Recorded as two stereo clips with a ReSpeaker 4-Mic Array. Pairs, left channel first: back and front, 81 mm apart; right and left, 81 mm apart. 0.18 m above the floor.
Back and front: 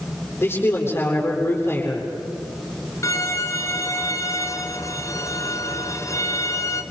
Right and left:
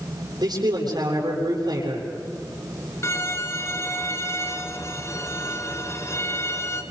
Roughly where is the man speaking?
Behind left.